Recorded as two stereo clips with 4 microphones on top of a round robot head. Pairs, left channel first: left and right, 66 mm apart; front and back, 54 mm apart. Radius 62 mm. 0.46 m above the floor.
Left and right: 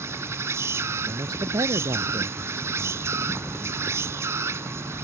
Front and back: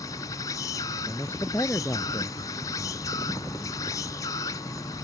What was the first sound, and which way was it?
An insect, 40° right.